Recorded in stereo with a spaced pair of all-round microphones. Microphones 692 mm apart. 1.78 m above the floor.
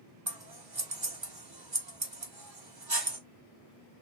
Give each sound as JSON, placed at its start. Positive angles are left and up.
{"t": 0.3, "sound": "scissors", "side_deg": -35, "distance_m": 1.3}